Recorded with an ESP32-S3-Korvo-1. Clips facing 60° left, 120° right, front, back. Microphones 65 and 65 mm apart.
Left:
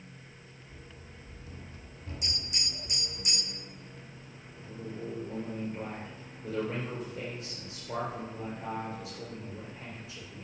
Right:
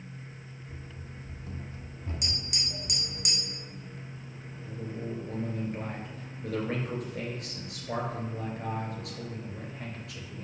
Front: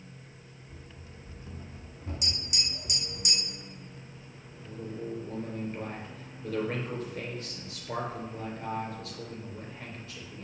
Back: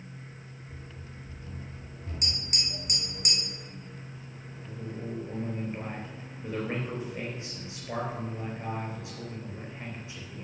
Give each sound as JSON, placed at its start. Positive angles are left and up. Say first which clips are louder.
{"t": 0.7, "sound": "running footsteps", "louder": "right 4 dB, back 2 dB", "azimuth_deg": -90, "distance_m": 1.6}
{"t": 2.2, "sound": "tapping", "louder": "left 1 dB, back 3 dB", "azimuth_deg": -140, "distance_m": 2.5}
{"t": 4.5, "sound": "a man speaking", "louder": "right 2 dB, front 1 dB", "azimuth_deg": -110, "distance_m": 3.5}